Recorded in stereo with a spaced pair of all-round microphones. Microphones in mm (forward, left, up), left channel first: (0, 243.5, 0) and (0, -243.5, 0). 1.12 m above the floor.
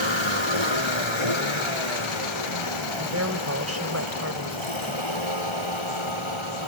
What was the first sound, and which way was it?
A vehicle, 65° left (ahead or behind).